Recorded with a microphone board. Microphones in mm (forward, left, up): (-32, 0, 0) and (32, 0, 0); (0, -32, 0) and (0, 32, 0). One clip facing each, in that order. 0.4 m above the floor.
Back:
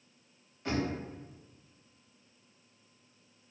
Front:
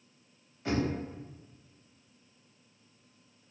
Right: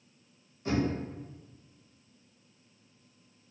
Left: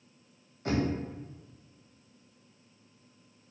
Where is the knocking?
85° left, 1.4 m.